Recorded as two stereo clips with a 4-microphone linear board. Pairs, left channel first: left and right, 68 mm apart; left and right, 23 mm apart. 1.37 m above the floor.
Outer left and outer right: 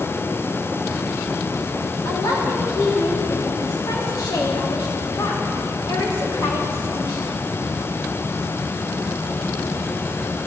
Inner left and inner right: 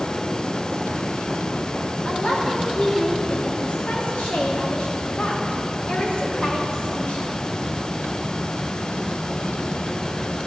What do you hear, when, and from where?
2.0 s a woman speaking: 85° left, 2.5 m